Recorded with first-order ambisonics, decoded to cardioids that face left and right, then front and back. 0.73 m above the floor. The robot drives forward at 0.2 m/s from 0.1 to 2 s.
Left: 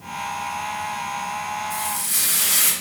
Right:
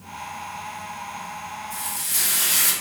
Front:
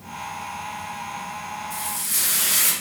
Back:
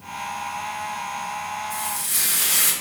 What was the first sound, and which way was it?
Frying, 120° left.